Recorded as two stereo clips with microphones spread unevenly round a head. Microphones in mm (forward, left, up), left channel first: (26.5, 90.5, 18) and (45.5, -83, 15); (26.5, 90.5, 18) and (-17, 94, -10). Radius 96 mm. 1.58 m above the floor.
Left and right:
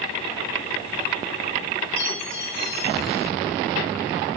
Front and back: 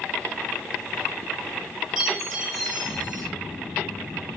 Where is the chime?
100° left, 4 m.